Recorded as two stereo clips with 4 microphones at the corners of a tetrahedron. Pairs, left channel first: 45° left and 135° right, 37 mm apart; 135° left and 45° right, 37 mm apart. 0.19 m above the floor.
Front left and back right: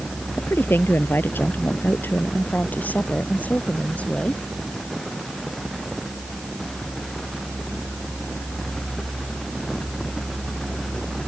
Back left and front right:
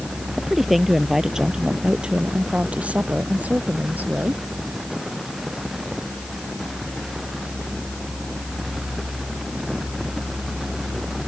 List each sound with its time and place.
0.4 s a woman speaking: 45° left; by 4.4 s 10° right